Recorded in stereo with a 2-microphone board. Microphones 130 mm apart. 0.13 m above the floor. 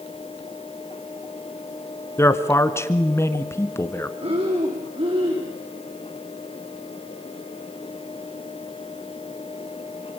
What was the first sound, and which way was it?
A man speaking, 20° left (ahead or behind).